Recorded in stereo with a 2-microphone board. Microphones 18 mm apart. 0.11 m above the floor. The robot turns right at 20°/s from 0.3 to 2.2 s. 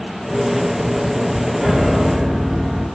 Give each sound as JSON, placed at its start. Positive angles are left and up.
{"t": 1.6, "sound": "a piano", "side_deg": -30, "distance_m": 0.9}